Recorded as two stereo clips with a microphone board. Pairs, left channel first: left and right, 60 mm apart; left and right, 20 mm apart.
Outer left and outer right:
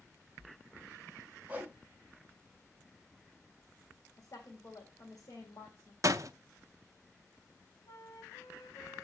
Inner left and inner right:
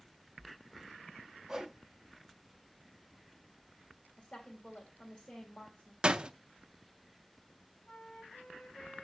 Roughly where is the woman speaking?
Left.